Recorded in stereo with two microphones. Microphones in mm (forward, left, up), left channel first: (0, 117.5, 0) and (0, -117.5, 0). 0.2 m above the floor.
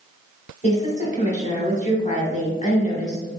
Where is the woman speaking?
30° left (ahead or behind), 1.2 m.